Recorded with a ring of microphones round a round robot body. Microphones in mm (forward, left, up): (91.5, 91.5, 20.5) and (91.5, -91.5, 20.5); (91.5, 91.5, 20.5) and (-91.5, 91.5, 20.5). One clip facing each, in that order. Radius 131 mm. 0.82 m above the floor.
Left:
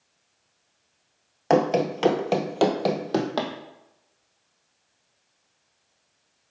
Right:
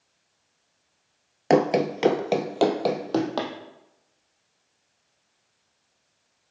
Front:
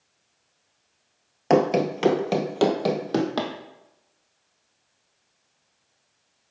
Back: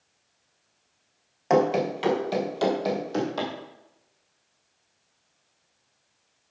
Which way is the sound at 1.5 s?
35° right.